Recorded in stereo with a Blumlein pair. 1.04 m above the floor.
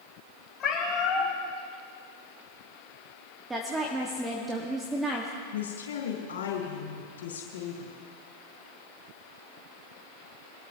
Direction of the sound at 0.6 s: 25° left.